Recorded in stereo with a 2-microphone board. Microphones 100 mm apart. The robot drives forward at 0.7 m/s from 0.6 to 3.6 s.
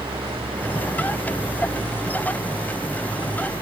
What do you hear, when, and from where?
0.0 s an engine running: 60° right (ahead or behind); by 3.6 s 65° right (ahead or behind)